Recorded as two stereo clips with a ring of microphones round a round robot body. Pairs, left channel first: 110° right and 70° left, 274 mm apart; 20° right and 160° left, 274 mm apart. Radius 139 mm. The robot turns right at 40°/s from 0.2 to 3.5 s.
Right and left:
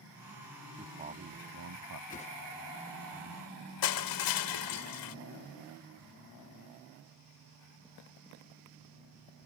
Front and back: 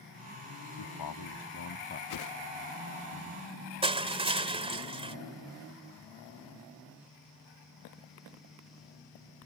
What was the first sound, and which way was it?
A man speaking, 10° right.